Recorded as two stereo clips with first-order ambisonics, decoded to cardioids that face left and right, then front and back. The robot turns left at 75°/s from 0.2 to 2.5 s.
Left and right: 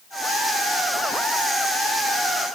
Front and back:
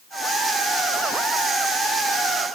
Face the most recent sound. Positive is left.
No sound to turn to.